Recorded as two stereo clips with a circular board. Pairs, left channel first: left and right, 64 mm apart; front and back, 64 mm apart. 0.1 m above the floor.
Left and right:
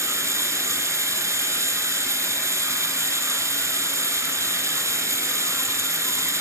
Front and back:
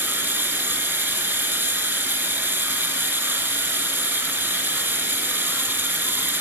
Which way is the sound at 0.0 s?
130° right.